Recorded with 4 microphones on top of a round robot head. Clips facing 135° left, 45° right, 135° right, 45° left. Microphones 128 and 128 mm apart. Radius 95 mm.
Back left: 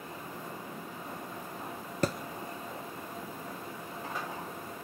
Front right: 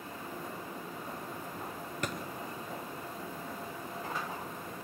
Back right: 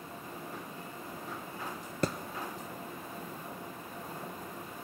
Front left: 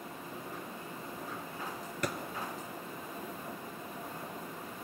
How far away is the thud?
About 1.2 m.